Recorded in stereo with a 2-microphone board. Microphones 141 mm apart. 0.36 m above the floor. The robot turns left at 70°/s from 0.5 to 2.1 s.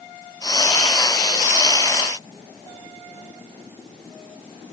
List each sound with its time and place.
Only background noise.